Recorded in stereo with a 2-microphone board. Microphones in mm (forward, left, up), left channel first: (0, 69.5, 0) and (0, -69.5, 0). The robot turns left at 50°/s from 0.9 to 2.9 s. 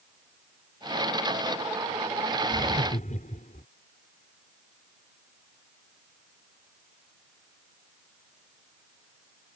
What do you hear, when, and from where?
2.5 s laughter: 50° left (ahead or behind); by 3.6 s 70° left (ahead or behind)